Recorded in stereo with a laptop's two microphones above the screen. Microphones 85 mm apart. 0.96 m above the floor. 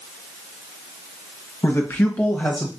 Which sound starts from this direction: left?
A man speaking, at 1.6 s.